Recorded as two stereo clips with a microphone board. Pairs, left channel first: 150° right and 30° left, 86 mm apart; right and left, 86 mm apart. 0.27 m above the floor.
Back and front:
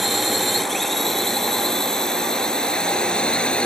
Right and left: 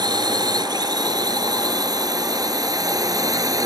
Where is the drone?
120° left; by 3.7 s 130° left.